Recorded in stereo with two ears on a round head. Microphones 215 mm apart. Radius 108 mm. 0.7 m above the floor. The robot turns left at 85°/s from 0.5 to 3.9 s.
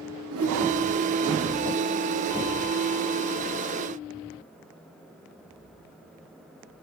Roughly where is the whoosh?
Right.